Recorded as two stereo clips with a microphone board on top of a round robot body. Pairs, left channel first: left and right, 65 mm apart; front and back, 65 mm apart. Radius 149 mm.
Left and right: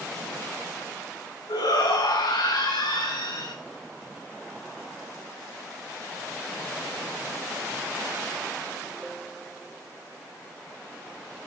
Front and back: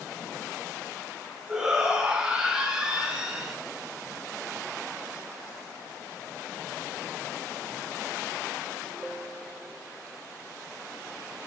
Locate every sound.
1.5 s a shout: 100° left, 5 m